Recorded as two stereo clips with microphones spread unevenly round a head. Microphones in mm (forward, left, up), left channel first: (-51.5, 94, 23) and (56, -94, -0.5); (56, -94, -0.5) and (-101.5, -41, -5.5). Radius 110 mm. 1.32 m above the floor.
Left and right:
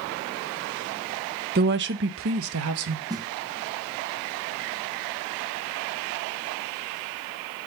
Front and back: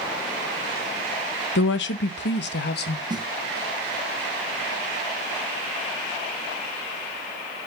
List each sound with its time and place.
1.6 s a woman speaking: 10° right, 0.9 m; by 3.0 s 40° right, 1.5 m
3.1 s a snare drum: 135° right, 0.9 m